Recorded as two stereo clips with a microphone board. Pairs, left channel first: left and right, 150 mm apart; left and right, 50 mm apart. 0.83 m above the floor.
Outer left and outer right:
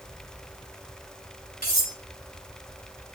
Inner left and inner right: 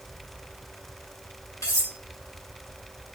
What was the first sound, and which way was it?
Cutlery clinking, 75° left (ahead or behind).